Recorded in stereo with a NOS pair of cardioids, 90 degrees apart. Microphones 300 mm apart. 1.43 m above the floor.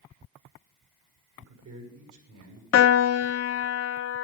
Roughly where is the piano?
Ahead left.